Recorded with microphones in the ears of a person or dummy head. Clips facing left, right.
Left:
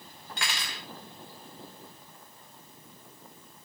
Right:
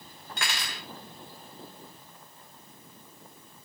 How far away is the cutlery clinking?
About 1.3 m.